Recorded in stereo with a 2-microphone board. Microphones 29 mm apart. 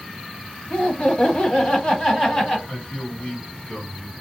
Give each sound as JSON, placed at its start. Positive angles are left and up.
{"t": 0.7, "sound": "laughter", "side_deg": 45, "distance_m": 1.4}
{"t": 2.7, "sound": "a man speaking", "side_deg": 55, "distance_m": 2.5}